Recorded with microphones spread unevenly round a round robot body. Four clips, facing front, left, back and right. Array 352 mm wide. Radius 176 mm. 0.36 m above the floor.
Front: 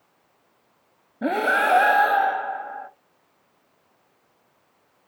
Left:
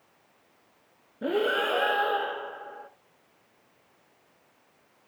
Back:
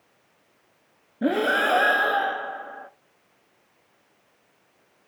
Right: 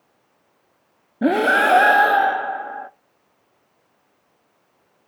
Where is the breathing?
100° right, 0.5 m.